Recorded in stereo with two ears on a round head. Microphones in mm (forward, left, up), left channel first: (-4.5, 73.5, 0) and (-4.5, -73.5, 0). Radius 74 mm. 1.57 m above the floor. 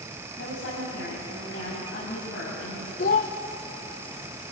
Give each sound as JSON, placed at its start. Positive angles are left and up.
{"t": 0.4, "sound": "a woman speaking", "side_deg": 85, "distance_m": 9.5}
{"t": 3.0, "sound": "a child speaking", "side_deg": 55, "distance_m": 1.0}